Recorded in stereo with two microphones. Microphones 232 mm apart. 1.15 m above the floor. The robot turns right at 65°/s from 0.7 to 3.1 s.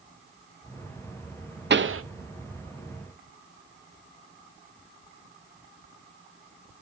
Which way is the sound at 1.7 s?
50° right (ahead or behind).